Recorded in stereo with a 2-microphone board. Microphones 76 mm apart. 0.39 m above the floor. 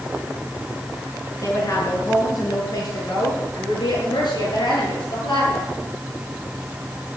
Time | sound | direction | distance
1.4 | a woman speaking | 40° left (ahead or behind) | 5 m